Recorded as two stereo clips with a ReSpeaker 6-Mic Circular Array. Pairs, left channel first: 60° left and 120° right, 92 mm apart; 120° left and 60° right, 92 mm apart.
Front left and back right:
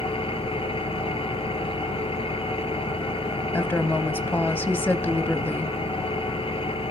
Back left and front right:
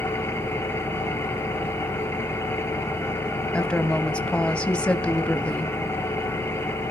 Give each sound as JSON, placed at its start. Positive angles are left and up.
{"t": 0.0, "sound": "an engine running", "azimuth_deg": 55, "distance_m": 2.5}
{"t": 3.5, "sound": "a woman speaking", "azimuth_deg": 65, "distance_m": 1.0}